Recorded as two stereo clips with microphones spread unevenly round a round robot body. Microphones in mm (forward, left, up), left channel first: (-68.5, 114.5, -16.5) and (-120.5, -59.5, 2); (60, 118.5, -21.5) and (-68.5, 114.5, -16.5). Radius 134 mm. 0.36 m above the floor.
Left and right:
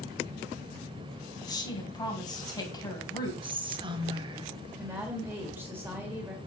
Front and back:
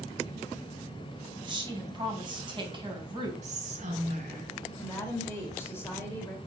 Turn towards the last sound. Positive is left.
turn(degrees=-30)